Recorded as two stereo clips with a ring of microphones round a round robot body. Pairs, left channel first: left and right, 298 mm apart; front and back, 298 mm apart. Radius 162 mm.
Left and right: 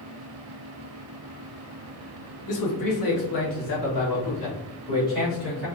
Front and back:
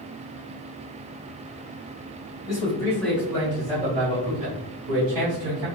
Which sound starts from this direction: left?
A man speaking, at 2.5 s.